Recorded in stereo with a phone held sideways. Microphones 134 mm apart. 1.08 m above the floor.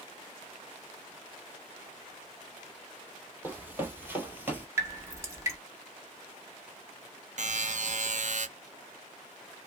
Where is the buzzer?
60° right (ahead or behind), 0.6 m.